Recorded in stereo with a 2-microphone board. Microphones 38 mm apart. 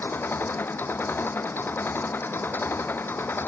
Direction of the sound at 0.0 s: 70° left (ahead or behind).